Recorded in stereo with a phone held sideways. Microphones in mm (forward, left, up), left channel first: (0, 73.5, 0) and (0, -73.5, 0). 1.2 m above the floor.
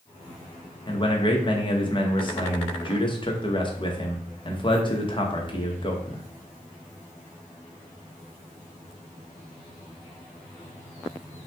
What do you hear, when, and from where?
0.9 s a man speaking: 35° left (ahead or behind), 1.0 m